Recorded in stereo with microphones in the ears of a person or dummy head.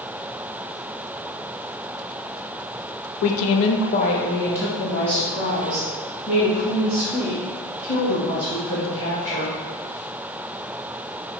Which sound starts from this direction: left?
A woman speaking, at 3.2 s.